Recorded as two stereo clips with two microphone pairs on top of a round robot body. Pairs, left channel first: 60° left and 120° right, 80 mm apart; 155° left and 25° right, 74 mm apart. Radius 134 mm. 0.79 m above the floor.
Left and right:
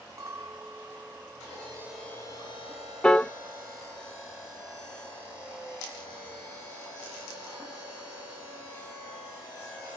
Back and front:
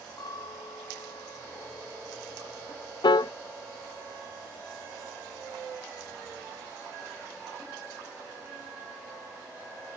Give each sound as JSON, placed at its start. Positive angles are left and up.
{"t": 0.2, "sound": "a clink", "azimuth_deg": -170, "distance_m": 4.0}
{"t": 3.0, "sound": "a piano", "azimuth_deg": 140, "distance_m": 0.6}